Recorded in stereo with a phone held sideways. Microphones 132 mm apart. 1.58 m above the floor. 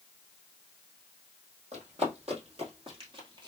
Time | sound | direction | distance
1.7 | running footsteps | 50° right (ahead or behind) | 2.5 m